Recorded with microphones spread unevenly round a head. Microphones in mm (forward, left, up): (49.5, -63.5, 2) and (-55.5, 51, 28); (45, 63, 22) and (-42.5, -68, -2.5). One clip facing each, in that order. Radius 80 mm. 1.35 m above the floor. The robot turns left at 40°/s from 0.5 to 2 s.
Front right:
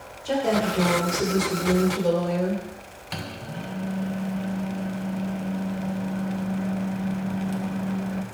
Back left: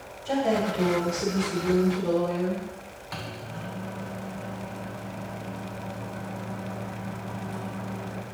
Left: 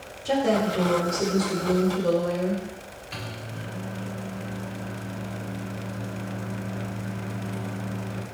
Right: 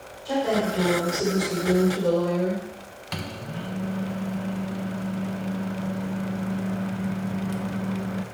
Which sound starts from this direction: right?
A microwave, at 3.1 s.